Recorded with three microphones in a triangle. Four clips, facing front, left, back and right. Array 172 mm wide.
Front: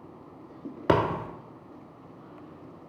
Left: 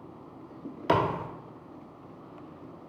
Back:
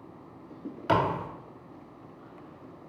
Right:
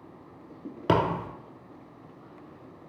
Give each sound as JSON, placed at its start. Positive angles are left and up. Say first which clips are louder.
{"t": 0.9, "sound": "a thud", "louder": "right 1 dB, front 2 dB", "azimuth_deg": -45, "distance_m": 0.6}